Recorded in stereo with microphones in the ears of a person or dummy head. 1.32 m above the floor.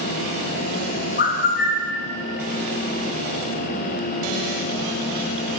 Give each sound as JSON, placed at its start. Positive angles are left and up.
{"t": 1.2, "sound": "a bird", "side_deg": 40, "distance_m": 0.6}